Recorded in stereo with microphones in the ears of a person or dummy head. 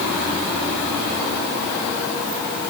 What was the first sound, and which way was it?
Only background noise.